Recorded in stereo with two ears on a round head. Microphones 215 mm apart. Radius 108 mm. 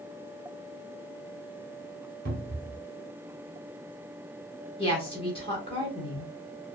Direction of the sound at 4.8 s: 25° left (ahead or behind).